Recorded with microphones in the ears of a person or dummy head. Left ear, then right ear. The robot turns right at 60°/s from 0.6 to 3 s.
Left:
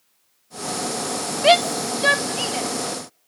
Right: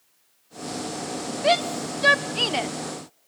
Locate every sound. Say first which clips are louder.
1.4 s a shout: left 6 dB; 35° left (ahead or behind), 0.8 m; by 2.7 s 35° right (ahead or behind), 0.8 m